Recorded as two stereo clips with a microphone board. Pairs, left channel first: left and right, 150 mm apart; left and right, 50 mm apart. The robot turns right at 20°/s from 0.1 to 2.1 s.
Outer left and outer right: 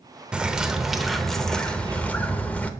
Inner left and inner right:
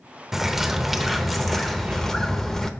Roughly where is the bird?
Centre.